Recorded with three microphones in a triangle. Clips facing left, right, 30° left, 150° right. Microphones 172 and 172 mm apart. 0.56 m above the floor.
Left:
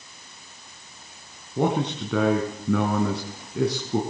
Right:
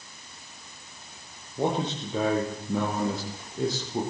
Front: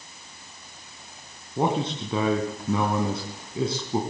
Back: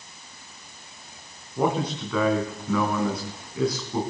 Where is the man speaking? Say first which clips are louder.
Left 4 dB, even; 95° left, 4.5 m.